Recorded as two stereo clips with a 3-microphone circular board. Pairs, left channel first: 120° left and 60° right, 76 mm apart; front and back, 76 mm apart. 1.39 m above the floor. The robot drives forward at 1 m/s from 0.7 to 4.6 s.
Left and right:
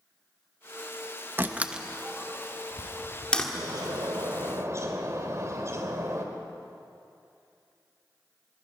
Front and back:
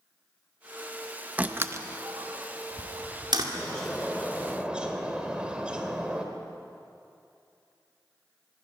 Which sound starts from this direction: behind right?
A door slam, at 1.4 s.